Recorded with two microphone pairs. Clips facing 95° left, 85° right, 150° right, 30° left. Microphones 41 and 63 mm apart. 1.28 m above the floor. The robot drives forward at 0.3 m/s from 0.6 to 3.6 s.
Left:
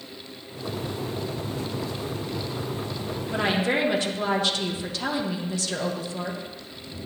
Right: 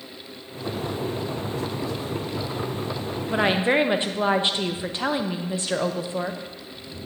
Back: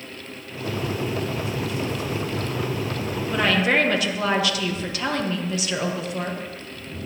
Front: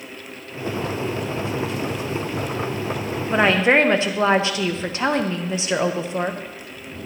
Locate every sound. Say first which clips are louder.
3.3 s a woman speaking: right 3 dB, front 4 dB; 25° right, 0.8 m; by 6.4 s 30° right, 0.7 m